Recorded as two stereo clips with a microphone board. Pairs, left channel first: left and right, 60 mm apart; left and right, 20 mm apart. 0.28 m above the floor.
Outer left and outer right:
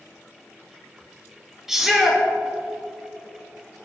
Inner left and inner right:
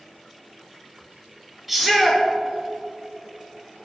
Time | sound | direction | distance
1.7 | a shout | 5° right (ahead or behind) | 5 m